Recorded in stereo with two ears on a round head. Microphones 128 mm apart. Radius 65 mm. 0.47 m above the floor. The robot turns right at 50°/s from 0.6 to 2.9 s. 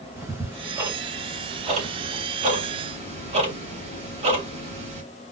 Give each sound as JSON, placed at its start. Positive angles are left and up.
{"t": 0.2, "sound": "ticking", "side_deg": -10, "distance_m": 2.5}